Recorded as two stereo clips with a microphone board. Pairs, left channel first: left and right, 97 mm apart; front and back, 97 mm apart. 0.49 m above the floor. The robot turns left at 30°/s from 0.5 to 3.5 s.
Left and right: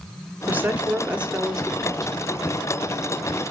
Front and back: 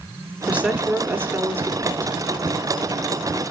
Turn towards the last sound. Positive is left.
turn(degrees=140)